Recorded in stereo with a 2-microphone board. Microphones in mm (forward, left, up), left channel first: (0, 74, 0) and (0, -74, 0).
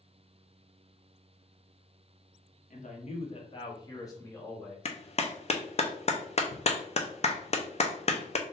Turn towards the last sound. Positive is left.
turn(degrees=45)  # may be behind; listen again after turning